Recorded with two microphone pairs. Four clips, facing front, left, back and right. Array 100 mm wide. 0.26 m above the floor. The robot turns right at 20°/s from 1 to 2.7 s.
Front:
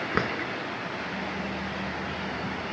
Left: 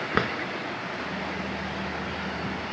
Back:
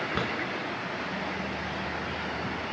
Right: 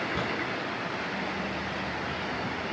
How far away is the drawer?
About 0.9 m.